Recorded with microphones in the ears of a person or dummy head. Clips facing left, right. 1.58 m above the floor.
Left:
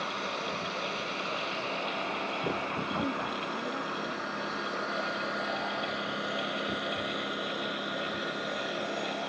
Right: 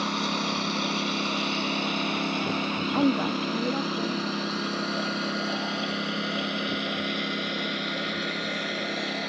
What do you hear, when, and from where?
0.0 s a lawn mower: 70° right (ahead or behind); by 9.3 s 25° right (ahead or behind)
2.9 s a woman speaking: 60° right (ahead or behind)